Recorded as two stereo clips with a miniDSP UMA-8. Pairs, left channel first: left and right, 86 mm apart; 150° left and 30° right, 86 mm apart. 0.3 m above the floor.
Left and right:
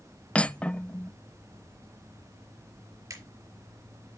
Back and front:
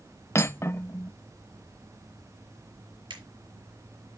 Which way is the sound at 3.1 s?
45° right.